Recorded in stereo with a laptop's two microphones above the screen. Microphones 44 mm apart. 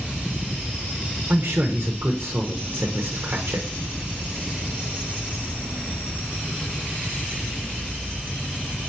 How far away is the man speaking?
About 0.7 m.